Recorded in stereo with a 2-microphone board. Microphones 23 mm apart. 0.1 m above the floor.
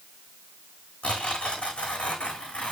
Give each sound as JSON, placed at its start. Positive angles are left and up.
{"t": 1.0, "sound": "tearing paper", "side_deg": 55, "distance_m": 4.5}